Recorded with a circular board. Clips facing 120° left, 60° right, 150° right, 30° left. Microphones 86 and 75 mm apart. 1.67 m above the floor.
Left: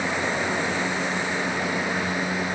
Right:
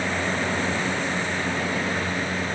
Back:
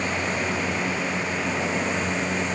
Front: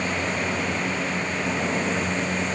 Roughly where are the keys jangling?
No keys jangling in this recording.